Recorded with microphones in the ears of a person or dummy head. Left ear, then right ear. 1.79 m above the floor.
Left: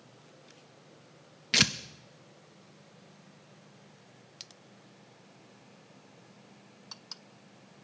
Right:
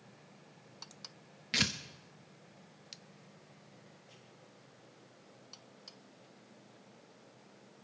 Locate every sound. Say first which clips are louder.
1.5 s tearing paper: left 7 dB; 20° left (ahead or behind), 0.5 m